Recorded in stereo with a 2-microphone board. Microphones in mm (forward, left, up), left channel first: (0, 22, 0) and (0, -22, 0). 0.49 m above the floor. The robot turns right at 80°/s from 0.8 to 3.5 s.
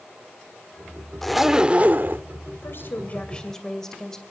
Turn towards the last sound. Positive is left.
turn(degrees=170)